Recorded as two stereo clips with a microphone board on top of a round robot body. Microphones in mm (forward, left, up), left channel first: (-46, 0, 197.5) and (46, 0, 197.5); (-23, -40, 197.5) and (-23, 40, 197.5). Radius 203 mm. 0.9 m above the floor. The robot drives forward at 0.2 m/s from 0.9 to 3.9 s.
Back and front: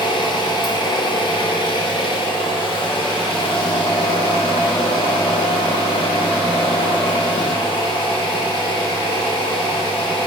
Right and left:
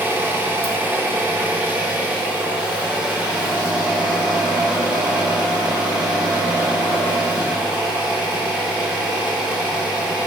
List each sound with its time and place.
0.0 s an engine running: 155° left, 0.9 m; by 10.3 s 165° left, 1.4 m